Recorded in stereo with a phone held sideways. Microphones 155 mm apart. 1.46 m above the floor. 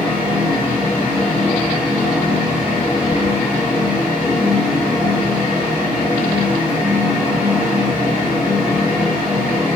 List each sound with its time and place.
0.0 s a fan: 10° right (ahead or behind), 0.9 m